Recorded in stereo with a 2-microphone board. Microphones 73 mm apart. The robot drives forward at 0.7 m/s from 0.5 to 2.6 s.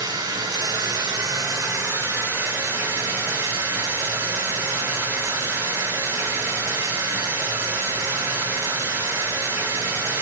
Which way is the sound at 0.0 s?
65° right (ahead or behind).